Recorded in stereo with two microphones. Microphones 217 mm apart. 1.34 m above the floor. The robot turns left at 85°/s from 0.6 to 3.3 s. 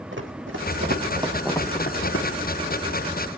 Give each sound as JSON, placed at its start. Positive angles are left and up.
{"t": 0.1, "sound": "running footsteps", "side_deg": -60, "distance_m": 3.0}